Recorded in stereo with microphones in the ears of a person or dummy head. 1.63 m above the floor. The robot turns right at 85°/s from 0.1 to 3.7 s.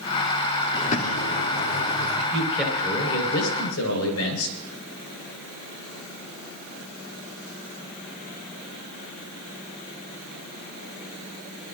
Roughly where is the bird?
Ahead left.